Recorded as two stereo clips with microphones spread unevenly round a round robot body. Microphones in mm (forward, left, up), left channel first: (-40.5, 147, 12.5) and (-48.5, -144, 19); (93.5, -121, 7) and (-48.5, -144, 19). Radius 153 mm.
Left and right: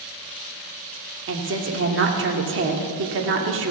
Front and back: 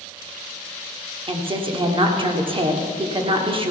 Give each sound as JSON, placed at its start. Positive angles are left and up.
{"t": 1.3, "sound": "a woman speaking", "azimuth_deg": -125, "distance_m": 1.6}